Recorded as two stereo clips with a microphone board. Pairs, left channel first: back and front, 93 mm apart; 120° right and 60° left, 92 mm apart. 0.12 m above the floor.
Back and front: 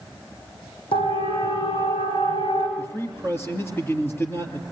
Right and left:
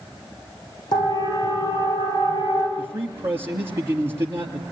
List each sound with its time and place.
0.9 s a siren: 160° right, 9.5 m; by 2.7 s 170° right, 11.5 m
2.8 s a man speaking: 120° left, 3 m